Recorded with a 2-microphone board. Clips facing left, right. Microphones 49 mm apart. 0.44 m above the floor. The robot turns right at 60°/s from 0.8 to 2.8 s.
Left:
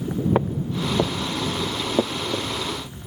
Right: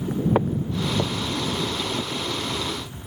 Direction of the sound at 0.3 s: Centre (ahead or behind).